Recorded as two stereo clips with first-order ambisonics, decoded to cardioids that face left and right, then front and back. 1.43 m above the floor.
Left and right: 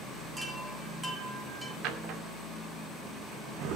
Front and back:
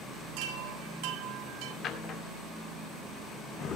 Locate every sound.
0.4 s a chime: 170° right, 1.7 m
1.8 s a drawer: 60° right, 2 m